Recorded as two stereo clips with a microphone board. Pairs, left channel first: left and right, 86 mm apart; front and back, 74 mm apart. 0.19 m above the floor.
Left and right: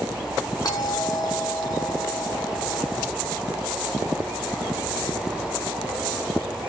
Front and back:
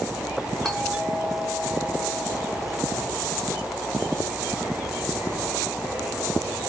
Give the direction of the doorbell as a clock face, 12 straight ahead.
9 o'clock.